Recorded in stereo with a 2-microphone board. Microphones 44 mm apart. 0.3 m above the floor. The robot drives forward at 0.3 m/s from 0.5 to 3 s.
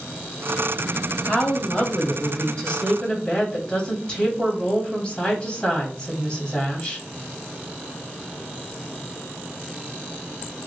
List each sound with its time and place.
1.3 s a woman speaking: 30° left (ahead or behind), 1.2 m; by 7.0 s 25° left (ahead or behind), 1.5 m